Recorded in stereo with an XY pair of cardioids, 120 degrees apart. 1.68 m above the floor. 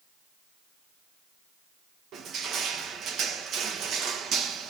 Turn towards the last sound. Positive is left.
turn(degrees=-60)